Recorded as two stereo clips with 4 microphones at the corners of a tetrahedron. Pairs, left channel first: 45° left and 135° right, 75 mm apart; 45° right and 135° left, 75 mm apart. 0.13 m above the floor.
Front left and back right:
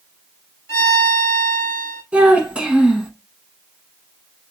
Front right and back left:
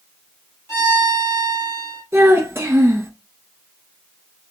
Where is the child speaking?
160° left, 0.8 m.